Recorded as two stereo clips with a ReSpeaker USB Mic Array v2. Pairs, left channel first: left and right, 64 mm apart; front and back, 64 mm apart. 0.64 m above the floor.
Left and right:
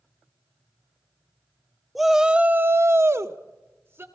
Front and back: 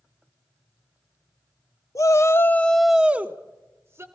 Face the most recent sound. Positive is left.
turn(degrees=-140)